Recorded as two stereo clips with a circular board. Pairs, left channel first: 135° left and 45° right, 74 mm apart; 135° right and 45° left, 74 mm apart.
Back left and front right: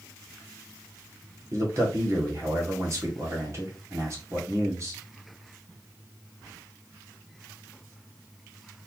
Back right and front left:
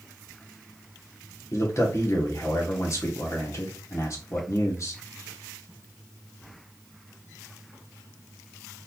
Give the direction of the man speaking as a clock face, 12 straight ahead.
3 o'clock.